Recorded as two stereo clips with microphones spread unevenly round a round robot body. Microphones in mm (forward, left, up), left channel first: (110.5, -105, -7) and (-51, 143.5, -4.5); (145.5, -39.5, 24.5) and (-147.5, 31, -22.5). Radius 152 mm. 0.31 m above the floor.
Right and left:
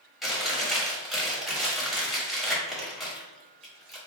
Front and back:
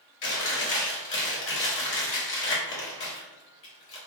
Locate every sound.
0.2 s chewing: 35° left, 1.3 m